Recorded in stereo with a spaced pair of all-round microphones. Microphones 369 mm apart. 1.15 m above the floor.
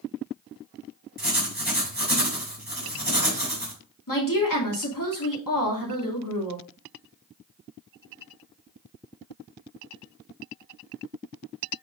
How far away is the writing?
About 3.5 m.